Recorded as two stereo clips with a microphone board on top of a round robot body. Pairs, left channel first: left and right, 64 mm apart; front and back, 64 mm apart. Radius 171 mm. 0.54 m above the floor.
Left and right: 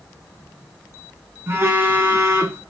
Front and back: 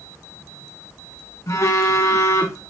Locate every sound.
1.5 s a phone buzzing: 40° right, 1.8 m